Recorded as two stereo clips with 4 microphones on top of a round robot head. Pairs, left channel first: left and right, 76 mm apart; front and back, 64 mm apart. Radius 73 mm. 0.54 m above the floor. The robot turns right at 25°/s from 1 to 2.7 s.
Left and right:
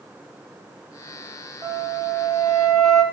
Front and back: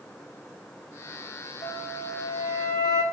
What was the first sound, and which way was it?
A flute, 25° right.